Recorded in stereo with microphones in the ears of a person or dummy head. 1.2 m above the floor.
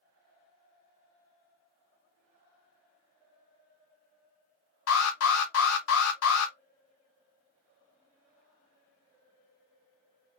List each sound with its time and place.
4.9 s an alarm: 85° left, 0.8 m